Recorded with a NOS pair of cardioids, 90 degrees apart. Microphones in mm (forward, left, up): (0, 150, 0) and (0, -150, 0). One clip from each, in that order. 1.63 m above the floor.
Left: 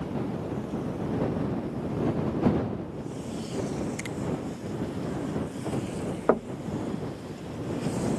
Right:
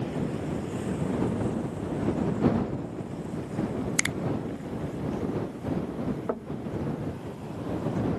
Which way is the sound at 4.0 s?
70° right.